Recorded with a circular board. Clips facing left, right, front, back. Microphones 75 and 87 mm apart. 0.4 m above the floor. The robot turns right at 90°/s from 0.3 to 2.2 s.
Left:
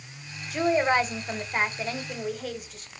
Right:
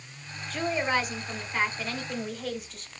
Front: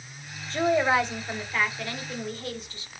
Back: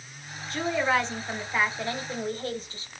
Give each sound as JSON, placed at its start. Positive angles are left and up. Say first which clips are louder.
{"t": 0.5, "sound": "a woman speaking", "louder": "left 5 dB, front 3 dB", "azimuth_deg": 20, "distance_m": 0.9}